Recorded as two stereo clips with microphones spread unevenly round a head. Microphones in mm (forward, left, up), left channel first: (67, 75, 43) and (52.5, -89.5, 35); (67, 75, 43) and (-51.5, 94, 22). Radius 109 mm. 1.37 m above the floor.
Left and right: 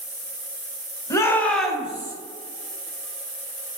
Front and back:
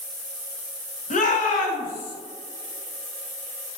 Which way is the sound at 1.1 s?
15° left.